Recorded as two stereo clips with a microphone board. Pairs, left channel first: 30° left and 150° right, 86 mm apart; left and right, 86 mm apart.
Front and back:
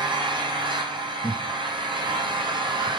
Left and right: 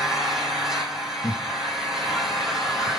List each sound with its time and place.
0.0 s an engine running: 175° right, 3.5 m
1.2 s laughter: 70° left, 1.4 m